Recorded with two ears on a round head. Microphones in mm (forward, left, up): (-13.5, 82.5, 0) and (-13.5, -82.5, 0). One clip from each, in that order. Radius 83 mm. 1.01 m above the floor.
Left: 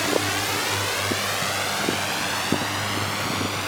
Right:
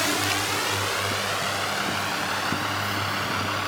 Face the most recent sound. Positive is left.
turn(degrees=20)  # may be behind; listen again after turning